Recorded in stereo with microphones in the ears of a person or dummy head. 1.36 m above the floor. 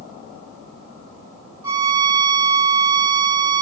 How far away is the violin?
About 3 m.